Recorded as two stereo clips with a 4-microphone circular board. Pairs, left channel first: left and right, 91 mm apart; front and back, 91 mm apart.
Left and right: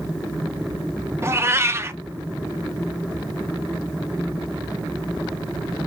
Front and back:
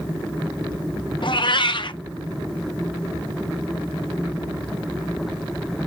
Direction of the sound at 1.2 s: 30° right.